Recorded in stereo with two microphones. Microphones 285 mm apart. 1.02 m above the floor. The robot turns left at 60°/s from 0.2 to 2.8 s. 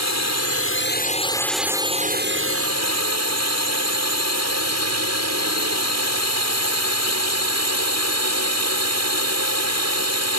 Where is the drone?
80° left; by 10.4 s 75° right.